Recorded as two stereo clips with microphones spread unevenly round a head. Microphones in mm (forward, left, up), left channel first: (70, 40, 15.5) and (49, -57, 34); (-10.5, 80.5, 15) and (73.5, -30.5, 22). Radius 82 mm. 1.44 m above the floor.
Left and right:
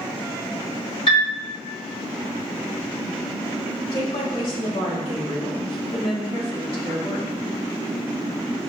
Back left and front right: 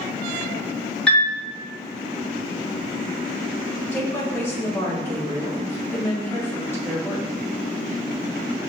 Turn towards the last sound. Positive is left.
turn(degrees=55)